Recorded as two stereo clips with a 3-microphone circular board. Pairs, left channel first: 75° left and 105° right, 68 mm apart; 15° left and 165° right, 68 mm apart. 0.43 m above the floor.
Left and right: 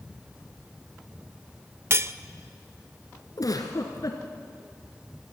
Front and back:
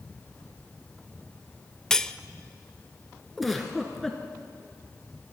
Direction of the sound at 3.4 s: 105° left.